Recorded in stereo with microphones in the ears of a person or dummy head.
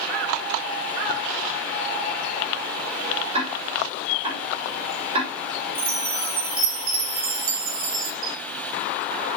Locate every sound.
3.3 s ticking: 30° right (ahead or behind), 6.5 m
5.8 s a chime: 50° right (ahead or behind), 2.5 m
8.2 s a camera shutter: 75° right (ahead or behind), 3 m